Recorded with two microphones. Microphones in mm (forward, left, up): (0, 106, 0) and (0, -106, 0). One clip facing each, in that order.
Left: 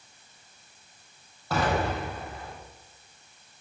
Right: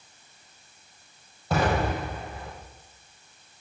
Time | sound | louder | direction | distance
1.5 | an explosion | right 2 dB | 20° right (ahead or behind) | 6.5 m